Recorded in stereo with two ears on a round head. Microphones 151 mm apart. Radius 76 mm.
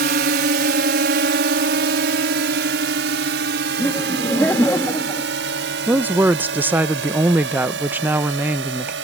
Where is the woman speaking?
10° right (ahead or behind).